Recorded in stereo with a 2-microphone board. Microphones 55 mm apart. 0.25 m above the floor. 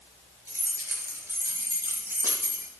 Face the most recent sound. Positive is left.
turn(degrees=-45)  # may be behind; listen again after turning